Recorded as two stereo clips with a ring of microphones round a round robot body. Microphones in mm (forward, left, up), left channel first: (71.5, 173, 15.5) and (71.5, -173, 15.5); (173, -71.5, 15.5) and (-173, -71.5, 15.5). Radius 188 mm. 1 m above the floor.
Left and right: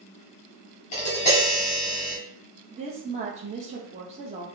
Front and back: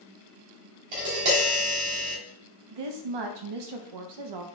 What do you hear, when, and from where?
0.9 s tapping: 160° left, 1.9 m
2.7 s a woman speaking: 165° right, 0.6 m